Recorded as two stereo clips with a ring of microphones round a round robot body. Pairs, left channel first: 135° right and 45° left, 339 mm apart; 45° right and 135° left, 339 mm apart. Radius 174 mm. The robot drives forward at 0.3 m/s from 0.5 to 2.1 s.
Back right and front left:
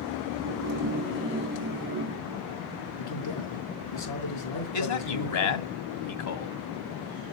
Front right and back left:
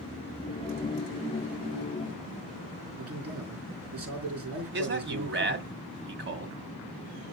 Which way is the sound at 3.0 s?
175° right.